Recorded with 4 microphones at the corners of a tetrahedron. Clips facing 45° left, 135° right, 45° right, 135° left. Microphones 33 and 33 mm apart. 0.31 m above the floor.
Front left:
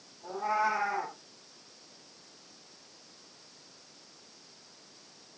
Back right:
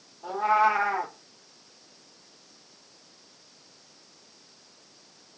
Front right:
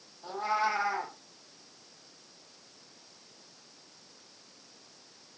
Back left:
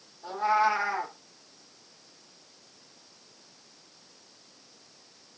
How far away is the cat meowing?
About 3 m.